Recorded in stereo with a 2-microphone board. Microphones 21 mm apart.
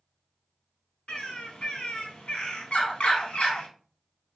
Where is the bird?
70° left (ahead or behind), 0.7 m.